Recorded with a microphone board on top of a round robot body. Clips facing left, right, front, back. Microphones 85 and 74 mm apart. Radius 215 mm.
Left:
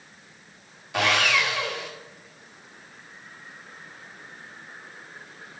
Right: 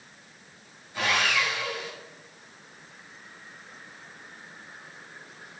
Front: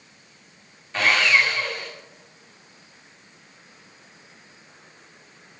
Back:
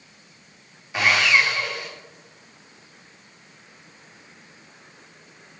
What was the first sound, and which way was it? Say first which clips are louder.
Sawing: left 3 dB, even; 100° left.